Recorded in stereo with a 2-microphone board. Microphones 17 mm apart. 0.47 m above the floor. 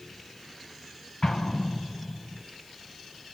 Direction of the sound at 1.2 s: 55° left (ahead or behind).